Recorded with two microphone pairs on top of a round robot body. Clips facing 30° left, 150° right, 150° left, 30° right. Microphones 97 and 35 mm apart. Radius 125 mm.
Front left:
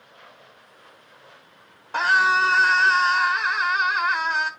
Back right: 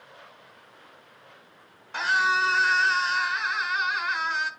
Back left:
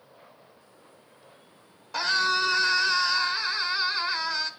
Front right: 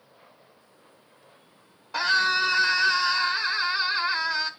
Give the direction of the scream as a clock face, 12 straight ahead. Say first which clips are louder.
Front left 5 dB, front right 2 dB; 11 o'clock.